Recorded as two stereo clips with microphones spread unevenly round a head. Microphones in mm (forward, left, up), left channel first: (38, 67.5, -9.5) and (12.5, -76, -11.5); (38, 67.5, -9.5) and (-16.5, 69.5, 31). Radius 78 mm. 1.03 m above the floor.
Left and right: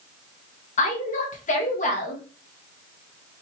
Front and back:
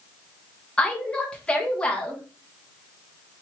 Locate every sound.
0.8 s a woman speaking: 45° left, 1.5 m